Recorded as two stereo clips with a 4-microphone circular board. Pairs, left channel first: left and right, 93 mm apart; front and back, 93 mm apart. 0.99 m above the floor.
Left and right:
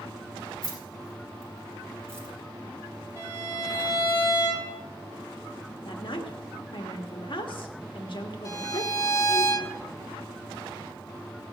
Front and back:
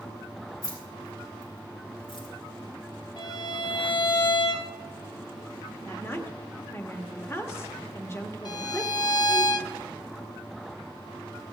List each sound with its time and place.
0.6 s keys jangling: 45° right, 5 m; by 2.3 s 25° right, 3 m
3.2 s a violin: 35° right, 3 m
5.8 s a woman speaking: 60° left, 1.3 m
8.4 s a violin: 40° left, 0.8 m